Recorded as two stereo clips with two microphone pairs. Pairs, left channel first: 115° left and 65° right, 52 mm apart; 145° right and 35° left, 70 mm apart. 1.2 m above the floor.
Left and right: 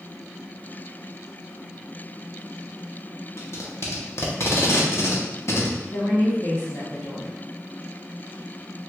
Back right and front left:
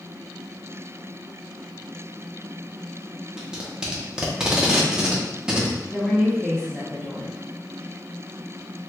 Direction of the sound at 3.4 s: 115° left.